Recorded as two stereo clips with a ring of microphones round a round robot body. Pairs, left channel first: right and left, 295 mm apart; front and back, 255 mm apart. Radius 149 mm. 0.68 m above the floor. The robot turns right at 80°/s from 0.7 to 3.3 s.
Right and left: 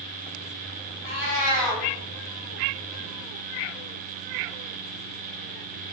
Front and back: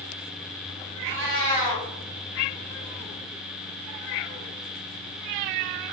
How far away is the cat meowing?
About 1.7 m.